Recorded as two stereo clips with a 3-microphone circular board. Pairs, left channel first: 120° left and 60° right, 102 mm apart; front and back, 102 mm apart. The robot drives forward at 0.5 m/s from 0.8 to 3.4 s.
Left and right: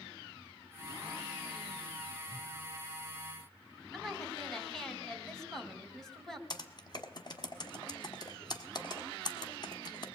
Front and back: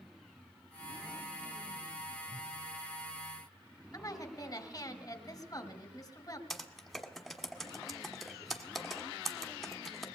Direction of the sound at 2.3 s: 175° left.